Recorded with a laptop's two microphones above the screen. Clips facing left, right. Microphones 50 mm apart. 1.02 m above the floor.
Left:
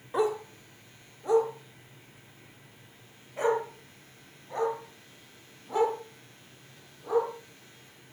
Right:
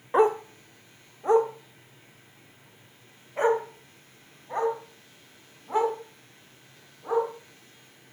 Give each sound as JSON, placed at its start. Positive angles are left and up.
{"t": 0.1, "sound": "a dog barking", "side_deg": -40, "distance_m": 0.7}